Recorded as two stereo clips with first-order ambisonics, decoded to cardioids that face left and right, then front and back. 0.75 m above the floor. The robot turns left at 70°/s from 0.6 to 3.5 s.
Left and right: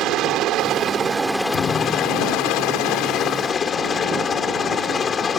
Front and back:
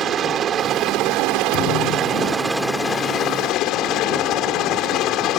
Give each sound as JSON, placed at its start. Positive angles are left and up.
{"t": 0.0, "sound": "a helicopter", "azimuth_deg": -130}
{"t": 1.5, "sound": "a thud", "azimuth_deg": 40}